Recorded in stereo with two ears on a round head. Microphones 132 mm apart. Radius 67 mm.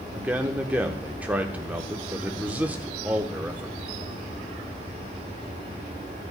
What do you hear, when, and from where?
0.1 s a man speaking: 10° right (ahead or behind), 0.9 m